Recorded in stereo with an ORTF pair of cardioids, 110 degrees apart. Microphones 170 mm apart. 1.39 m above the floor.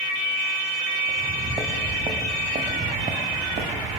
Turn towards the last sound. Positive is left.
turn(degrees=-60)